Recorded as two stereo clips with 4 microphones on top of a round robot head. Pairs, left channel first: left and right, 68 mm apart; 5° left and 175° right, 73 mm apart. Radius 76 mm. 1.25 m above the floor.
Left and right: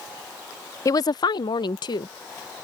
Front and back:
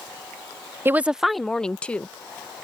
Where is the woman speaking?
130° left; by 2.6 s 75° left.